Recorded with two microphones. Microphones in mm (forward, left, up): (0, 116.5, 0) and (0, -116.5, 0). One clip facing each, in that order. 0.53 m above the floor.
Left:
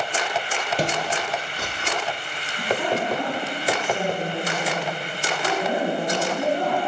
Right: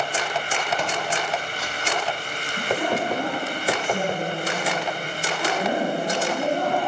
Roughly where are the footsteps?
Left.